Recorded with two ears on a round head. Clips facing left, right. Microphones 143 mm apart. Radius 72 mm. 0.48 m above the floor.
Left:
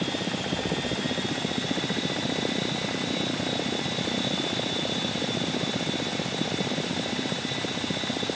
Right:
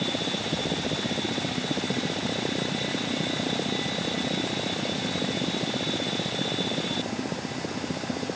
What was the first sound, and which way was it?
Only background noise.